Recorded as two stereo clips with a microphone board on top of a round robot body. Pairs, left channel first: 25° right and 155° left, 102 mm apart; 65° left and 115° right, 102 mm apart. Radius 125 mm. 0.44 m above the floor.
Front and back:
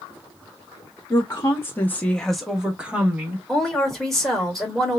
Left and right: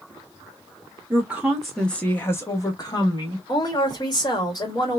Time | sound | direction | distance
1.1 | a woman speaking | 50° right | 1.1 m
3.5 | a woman speaking | 60° left | 1.7 m